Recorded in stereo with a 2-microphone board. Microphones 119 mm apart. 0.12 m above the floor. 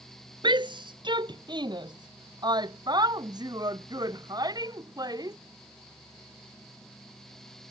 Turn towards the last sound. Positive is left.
turn(degrees=-35)  # may be behind; listen again after turning